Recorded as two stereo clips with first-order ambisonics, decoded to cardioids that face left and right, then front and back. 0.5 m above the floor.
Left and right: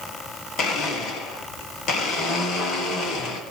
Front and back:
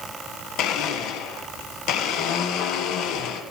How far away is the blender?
About 2 m.